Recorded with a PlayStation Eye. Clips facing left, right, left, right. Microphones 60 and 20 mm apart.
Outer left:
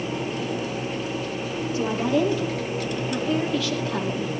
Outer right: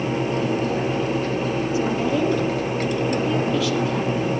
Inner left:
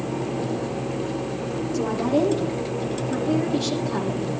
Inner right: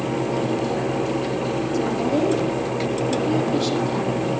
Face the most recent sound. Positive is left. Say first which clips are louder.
# outer left 1 dB, inner left 1 dB
turn(degrees=-10)  # may be behind; listen again after turning